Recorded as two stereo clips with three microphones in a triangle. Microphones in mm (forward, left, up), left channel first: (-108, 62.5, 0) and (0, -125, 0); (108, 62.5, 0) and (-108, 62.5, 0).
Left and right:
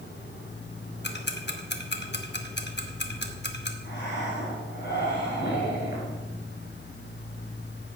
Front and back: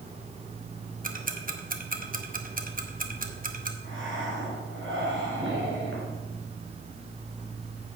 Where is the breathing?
155° left, 3 m.